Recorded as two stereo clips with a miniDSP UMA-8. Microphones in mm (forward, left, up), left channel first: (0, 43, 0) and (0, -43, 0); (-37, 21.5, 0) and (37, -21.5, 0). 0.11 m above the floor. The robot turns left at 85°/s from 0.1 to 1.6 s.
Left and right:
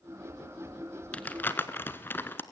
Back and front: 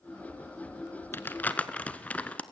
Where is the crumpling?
140° left, 1.3 m; by 2.4 s 100° left, 1.3 m.